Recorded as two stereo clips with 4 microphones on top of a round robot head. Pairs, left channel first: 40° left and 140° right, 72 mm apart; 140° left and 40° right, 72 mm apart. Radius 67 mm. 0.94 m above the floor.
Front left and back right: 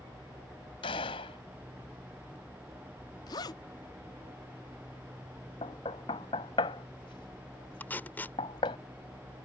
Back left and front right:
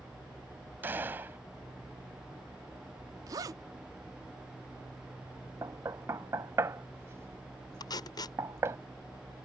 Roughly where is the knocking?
Ahead.